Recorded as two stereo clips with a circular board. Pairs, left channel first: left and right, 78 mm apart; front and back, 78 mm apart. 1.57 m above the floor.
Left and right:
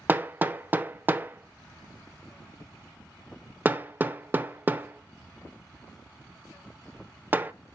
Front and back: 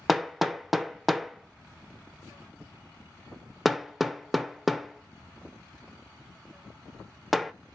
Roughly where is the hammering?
Right.